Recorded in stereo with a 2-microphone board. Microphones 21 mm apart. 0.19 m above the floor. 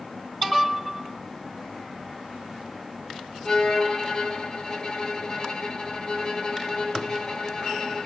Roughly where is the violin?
Left.